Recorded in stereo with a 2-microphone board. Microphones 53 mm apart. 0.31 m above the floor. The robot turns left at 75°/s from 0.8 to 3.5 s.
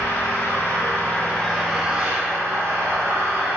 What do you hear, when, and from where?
0.0 s an engine running: 60° left, 1.0 m; by 3.6 s 140° right, 1.0 m